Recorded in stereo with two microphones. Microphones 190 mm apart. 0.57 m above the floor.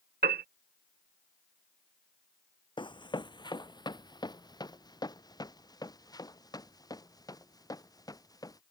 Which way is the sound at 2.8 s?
25° left (ahead or behind).